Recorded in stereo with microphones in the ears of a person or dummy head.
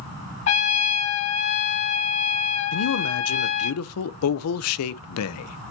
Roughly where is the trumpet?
Left.